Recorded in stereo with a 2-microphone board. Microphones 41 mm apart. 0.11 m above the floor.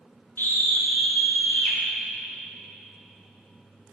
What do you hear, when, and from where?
0.4 s a scream: 70° left (ahead or behind), 4 m; by 1.8 s 65° left (ahead or behind), 5 m